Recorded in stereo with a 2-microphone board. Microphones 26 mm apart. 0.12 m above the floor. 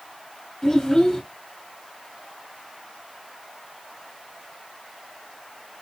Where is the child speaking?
10° left (ahead or behind), 1.1 m.